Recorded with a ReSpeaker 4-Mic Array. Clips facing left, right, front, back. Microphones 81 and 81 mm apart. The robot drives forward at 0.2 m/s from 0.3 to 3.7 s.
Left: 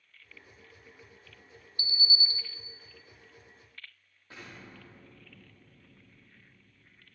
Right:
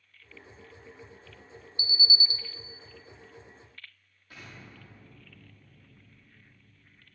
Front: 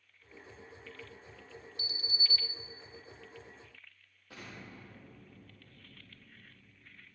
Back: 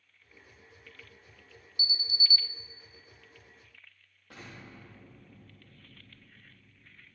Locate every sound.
1.8 s an alarm: 100° right, 1.3 m; by 2.4 s 115° right, 1.3 m
4.3 s an explosion: 155° left, 8.5 m